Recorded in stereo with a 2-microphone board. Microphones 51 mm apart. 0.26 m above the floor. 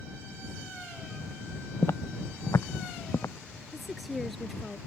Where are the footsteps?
65° left (ahead or behind); by 3.3 s 70° left (ahead or behind).